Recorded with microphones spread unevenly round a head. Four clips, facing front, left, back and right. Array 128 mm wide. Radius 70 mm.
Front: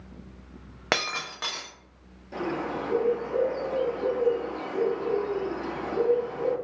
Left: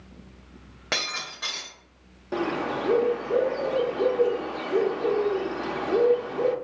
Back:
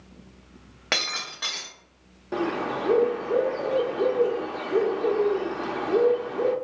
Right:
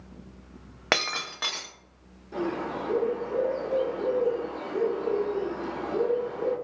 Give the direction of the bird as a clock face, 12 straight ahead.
8 o'clock.